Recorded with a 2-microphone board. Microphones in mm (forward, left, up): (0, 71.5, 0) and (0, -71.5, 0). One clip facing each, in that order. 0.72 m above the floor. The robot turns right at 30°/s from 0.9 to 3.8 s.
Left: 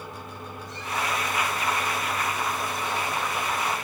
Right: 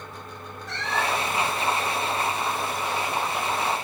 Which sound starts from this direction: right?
A cat meowing, at 0.7 s.